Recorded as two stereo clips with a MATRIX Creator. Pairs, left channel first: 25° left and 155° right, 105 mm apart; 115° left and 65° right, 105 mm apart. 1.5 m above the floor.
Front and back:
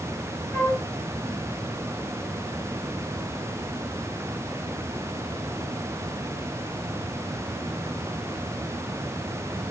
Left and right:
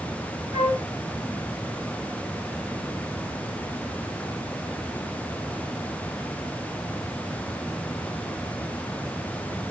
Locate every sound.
0.5 s a flute: 95° left, 0.8 m